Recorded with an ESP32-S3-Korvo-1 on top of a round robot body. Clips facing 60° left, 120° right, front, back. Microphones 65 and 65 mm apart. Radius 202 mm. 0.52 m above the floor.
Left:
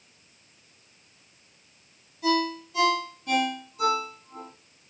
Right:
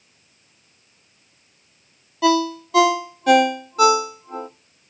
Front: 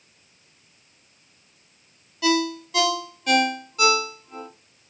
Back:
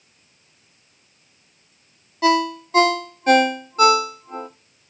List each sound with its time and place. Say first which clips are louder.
2.2 s a ringtone: right 7 dB, back 4 dB; 125° right, 0.7 m